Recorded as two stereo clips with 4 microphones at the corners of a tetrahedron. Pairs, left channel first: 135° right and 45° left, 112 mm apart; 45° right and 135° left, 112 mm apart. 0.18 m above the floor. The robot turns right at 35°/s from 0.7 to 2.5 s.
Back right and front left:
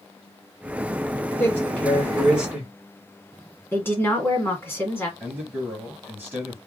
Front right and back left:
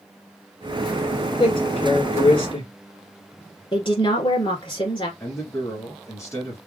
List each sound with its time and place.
1.4 s a man speaking: 70° right, 2 m; by 2.7 s 30° right, 2 m
3.7 s a woman speaking: 70° right, 1.8 m
5.2 s a man speaking: 15° right, 1.6 m